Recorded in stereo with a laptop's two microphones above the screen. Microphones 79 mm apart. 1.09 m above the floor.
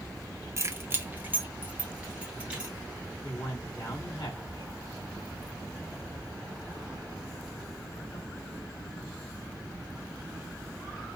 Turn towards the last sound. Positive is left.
turn(degrees=80)